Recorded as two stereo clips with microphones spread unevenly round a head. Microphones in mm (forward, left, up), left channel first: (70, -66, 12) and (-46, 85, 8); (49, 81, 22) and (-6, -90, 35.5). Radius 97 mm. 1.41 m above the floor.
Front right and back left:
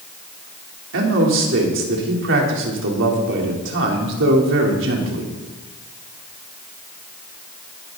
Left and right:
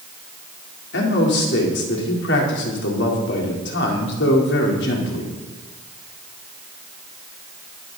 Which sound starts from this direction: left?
A man speaking, at 0.9 s.